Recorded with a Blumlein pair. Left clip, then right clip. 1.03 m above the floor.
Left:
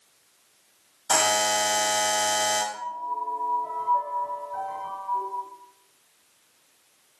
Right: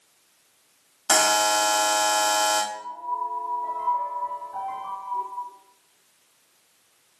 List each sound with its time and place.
1.1 s a buzzer: 65° right, 1.1 m
2.7 s a piano: 70° right, 1.6 m